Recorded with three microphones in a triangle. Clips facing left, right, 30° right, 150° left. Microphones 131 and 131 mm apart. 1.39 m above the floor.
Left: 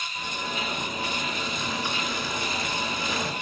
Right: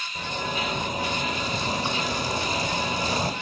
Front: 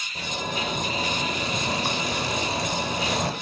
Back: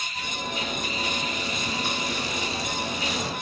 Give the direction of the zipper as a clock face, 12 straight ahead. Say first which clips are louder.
Right 4 dB, front 3 dB; 1 o'clock.